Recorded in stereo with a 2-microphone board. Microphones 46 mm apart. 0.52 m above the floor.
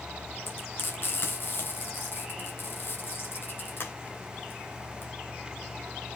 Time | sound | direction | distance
0.5 | frying | 55° left (ahead or behind) | 3.5 m